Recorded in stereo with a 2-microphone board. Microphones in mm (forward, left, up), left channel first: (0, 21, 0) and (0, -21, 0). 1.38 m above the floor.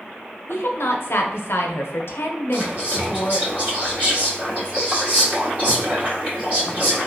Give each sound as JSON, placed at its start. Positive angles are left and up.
{"t": 0.5, "sound": "a woman speaking", "side_deg": 75, "distance_m": 0.7}
{"t": 2.5, "sound": "whispering", "side_deg": -40, "distance_m": 1.6}